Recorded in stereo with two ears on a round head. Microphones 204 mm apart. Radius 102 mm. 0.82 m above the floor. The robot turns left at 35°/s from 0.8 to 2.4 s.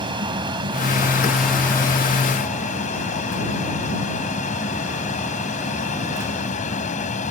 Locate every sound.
0.0 s an aircraft: 160° right; by 7.3 s 145° left